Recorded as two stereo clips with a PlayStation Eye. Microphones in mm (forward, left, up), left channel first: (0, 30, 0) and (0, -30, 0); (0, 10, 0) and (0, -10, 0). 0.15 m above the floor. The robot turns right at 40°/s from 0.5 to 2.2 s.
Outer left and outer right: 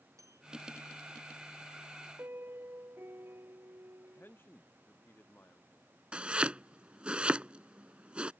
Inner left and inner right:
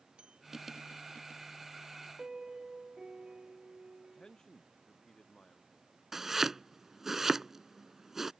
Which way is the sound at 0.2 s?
60° right (ahead or behind).